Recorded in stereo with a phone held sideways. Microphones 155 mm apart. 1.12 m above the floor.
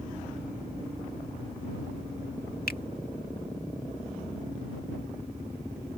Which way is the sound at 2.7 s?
75° left (ahead or behind).